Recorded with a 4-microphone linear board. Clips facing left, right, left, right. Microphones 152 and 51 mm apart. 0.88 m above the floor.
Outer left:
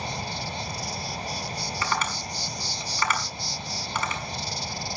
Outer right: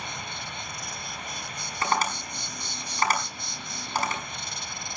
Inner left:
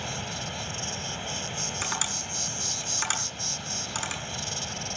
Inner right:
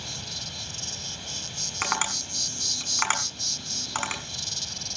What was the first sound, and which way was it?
An insect, 35° left (ahead or behind).